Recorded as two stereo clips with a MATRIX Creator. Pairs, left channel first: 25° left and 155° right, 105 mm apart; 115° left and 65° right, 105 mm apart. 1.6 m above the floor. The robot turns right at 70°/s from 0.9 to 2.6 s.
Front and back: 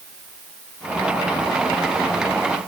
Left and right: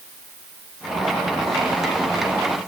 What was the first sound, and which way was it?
Only background noise.